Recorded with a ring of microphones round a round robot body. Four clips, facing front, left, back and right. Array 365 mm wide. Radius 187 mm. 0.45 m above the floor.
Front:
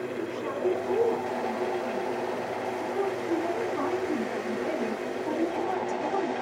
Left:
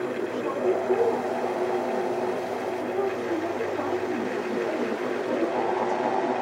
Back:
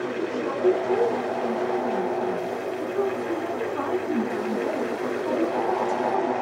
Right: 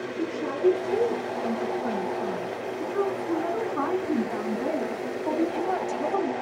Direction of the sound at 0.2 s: 110° right.